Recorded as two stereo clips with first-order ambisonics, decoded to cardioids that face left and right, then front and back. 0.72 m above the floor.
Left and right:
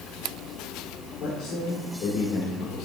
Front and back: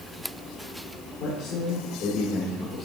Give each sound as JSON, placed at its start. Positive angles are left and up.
{"t": 1.2, "sound": "a man speaking", "azimuth_deg": 30, "distance_m": 1.6}